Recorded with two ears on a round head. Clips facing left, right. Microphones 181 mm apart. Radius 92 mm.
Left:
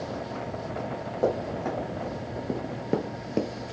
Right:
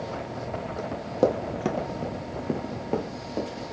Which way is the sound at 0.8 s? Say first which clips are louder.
Right 3 dB; 55° right (ahead or behind).